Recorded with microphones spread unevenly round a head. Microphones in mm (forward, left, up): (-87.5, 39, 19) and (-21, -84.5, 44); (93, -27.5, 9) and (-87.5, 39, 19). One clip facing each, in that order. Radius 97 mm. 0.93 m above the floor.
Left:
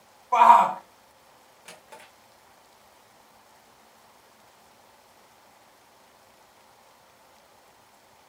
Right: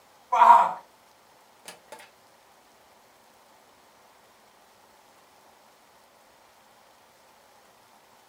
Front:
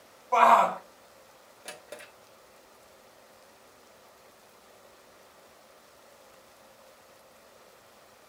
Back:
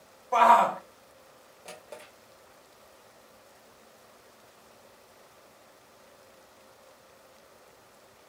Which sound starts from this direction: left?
A shout, at 0.3 s.